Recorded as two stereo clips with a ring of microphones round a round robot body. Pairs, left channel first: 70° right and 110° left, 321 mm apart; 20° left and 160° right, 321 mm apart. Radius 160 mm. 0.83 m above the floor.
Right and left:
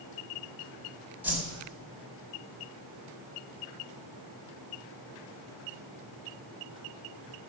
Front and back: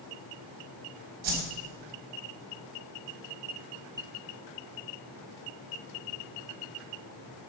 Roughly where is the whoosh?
Behind.